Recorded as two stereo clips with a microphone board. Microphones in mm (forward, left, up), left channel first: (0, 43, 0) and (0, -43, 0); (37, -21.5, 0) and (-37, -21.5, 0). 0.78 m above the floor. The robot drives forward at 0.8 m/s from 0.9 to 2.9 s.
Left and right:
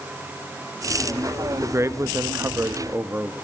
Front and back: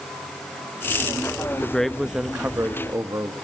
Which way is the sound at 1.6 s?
65° right.